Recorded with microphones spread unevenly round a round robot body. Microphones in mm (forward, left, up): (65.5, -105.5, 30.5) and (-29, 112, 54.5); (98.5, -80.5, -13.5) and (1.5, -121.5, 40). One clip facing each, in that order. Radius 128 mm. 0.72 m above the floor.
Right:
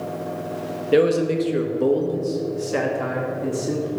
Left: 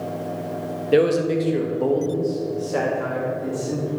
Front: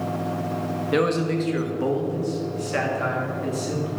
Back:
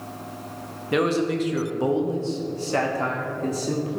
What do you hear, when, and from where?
0.9 s a man speaking: 15° left, 1.2 m; by 4.0 s 100° right, 2 m